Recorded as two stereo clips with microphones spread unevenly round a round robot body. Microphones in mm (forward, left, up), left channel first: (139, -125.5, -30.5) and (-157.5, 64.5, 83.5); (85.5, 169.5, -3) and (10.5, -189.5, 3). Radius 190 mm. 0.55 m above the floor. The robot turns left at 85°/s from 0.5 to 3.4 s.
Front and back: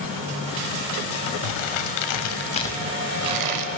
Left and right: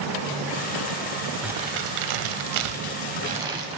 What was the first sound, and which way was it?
Crumpling, 15° right.